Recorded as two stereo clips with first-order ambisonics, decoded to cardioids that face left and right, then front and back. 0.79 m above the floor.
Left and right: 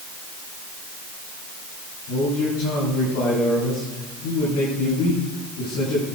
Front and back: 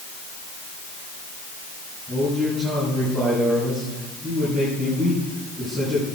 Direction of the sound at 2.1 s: 90° left.